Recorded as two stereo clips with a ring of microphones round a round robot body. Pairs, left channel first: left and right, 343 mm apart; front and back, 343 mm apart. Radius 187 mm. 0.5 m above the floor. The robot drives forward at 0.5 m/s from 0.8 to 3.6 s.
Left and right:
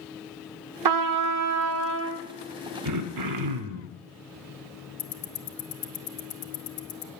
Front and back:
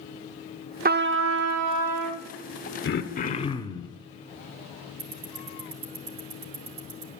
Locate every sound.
0.8 s a trumpet: 115° right, 0.7 m; by 2.3 s 150° right, 1.2 m
2.9 s throat clearing: 55° right, 1.1 m; by 4.0 s 75° right, 1.0 m
5.0 s ticking: 145° left, 1.1 m